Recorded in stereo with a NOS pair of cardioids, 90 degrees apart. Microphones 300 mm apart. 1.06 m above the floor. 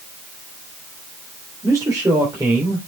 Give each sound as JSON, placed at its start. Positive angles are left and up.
{"t": 1.6, "sound": "a man speaking", "azimuth_deg": -10, "distance_m": 3.0}